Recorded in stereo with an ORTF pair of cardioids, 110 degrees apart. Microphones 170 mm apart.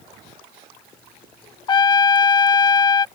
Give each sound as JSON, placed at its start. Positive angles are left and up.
{"t": 1.7, "sound": "a trumpet", "azimuth_deg": 25}